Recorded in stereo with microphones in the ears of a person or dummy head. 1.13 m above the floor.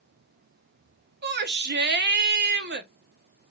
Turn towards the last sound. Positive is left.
turn(degrees=-50)  # may be behind; listen again after turning